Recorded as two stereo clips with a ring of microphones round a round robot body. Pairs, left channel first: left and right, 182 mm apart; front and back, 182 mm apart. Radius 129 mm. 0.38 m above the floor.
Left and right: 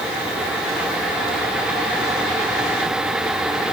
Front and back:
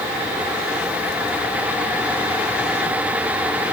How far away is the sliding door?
No sliding door in this recording.